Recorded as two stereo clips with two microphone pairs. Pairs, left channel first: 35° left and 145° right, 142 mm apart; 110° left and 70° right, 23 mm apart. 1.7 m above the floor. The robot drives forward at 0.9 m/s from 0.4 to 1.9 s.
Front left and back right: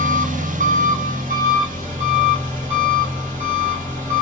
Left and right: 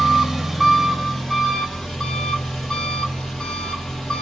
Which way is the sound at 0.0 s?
145° right.